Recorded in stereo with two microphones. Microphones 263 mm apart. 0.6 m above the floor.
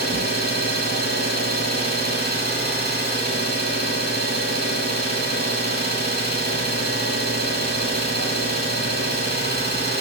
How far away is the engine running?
About 2.5 m.